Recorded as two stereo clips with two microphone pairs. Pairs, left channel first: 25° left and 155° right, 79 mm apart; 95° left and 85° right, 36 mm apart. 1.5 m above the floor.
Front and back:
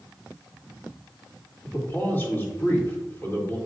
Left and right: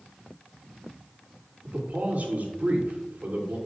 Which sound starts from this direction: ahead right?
A man speaking, at 1.6 s.